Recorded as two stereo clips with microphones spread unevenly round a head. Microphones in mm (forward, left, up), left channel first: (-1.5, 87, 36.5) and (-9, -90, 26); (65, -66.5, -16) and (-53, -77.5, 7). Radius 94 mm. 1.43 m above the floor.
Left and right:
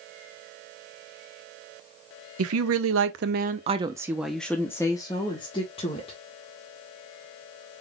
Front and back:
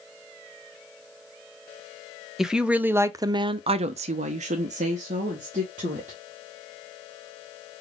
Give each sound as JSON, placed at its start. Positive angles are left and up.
{"t": 2.4, "sound": "a woman speaking", "azimuth_deg": -90, "distance_m": 0.9}